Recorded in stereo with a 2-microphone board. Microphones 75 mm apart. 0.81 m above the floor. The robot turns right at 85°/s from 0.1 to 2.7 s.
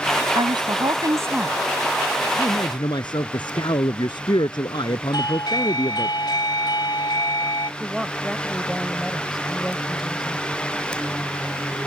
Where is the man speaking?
50° left (ahead or behind); by 6.1 s 80° left.